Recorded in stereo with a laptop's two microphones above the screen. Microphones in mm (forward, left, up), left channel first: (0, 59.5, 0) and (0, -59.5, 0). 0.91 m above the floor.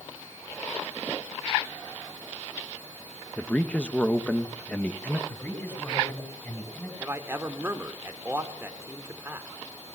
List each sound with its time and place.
3.4 s a man speaking: 10° left (ahead or behind), 1.0 m
5.3 s a man speaking: 20° left (ahead or behind), 5 m
7.0 s a man speaking: 20° right (ahead or behind), 3 m